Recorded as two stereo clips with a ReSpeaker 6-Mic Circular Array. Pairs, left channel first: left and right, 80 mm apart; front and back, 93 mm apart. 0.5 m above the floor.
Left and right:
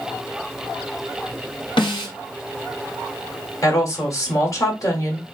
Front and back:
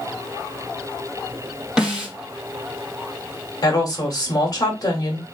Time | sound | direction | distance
1.8 | a snare drum | 95° left | 2 m
3.6 | a woman speaking | 45° left | 1.7 m